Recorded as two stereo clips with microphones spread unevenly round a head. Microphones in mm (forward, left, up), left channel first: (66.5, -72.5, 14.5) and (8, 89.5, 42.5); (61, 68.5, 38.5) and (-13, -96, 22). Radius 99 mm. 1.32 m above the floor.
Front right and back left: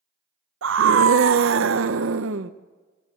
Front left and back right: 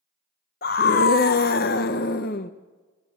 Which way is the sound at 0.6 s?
110° left.